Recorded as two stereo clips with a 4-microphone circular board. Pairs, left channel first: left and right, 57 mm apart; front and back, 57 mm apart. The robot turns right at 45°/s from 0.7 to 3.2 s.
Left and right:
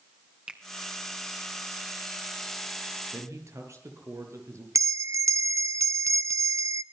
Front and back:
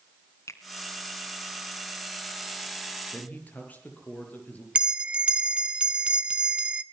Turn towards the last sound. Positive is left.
turn(degrees=-110)